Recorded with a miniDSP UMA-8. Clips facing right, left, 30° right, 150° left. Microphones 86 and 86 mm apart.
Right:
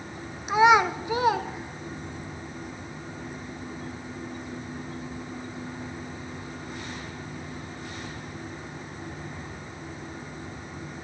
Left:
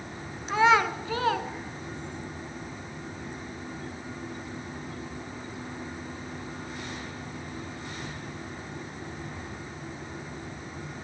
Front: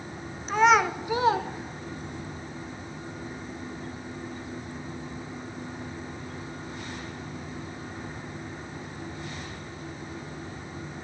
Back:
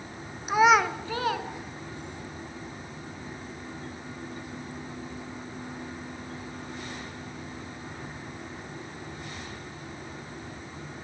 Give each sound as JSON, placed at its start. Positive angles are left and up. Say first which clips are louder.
{"t": 0.5, "sound": "a child speaking", "louder": "right 3 dB, even", "azimuth_deg": -145, "distance_m": 0.7}